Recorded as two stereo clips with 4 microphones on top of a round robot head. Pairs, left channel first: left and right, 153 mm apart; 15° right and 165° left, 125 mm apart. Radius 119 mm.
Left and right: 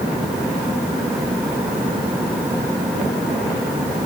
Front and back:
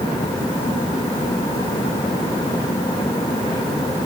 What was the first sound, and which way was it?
Only background noise.